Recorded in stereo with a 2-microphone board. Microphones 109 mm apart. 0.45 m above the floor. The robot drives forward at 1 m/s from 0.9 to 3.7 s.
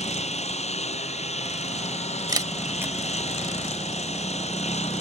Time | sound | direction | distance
0.0 | a lawn mower | 80° left | ?
2.3 | a camera shutter | 35° right (ahead or behind) | ?